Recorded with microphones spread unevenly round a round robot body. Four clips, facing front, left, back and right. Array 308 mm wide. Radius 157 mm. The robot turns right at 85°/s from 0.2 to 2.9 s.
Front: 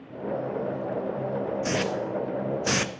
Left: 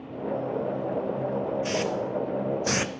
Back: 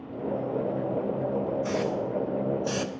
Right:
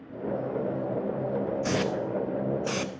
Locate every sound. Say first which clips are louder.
1.6 s a hiss: even, even; 55° right, 0.6 m; by 3.0 s 55° left, 0.6 m